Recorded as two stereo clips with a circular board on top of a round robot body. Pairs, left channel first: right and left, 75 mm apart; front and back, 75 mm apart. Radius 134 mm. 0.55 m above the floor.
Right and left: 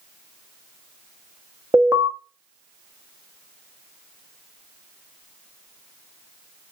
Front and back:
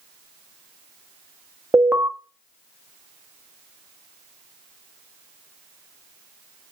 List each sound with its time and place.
1.7 s an alarm: 125° left, 1.3 m